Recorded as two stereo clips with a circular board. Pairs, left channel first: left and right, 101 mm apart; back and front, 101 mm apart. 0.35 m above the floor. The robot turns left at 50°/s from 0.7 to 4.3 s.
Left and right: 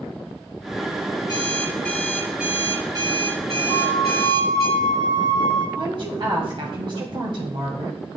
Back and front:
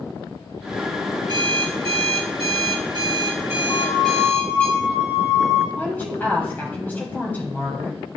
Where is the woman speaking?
110° right, 1.6 m.